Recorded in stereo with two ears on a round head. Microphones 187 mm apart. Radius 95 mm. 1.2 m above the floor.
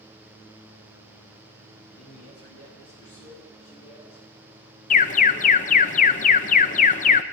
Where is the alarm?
40° left (ahead or behind), 0.7 m.